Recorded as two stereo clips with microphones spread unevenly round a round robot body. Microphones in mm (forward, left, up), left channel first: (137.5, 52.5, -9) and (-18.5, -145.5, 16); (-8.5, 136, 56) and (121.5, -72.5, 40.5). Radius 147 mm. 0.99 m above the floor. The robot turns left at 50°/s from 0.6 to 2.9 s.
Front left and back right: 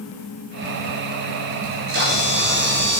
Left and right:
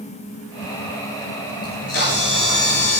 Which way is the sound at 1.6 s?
165° right.